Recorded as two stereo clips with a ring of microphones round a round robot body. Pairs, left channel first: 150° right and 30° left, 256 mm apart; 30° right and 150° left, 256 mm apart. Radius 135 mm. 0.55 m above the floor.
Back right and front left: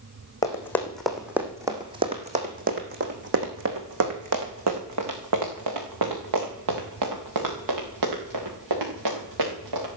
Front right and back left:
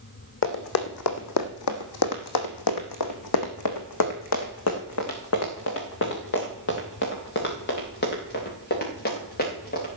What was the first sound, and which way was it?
Running footsteps, 70° right.